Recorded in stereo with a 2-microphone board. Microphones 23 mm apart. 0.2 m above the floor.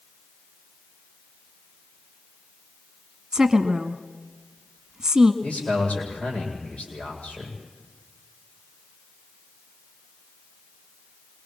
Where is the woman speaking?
25° right (ahead or behind), 1.5 m.